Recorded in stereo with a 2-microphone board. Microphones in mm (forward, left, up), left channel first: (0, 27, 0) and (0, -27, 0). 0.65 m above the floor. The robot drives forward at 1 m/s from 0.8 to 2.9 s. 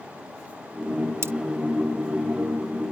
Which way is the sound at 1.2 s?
45° right (ahead or behind).